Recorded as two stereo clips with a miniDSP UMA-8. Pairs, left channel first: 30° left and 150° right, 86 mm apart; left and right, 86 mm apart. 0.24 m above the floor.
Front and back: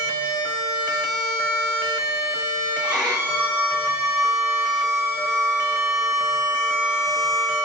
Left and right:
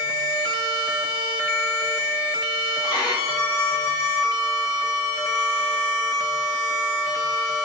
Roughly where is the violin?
Behind left.